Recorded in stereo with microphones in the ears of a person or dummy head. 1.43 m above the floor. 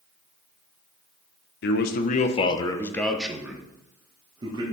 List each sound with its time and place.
1.6 s a man speaking: 65° left (ahead or behind), 1.0 m; by 4.7 s 35° right (ahead or behind), 1.8 m